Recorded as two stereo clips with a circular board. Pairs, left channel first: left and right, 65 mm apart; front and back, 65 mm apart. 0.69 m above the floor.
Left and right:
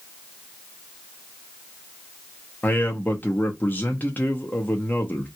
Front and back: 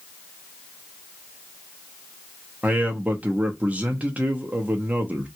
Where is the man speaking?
125° left, 0.7 m.